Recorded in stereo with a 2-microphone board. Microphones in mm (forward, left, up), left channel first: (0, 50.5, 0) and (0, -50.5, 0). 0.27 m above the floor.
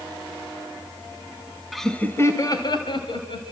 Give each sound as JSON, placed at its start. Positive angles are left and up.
{"t": 1.7, "sound": "laughter", "side_deg": 0, "distance_m": 1.3}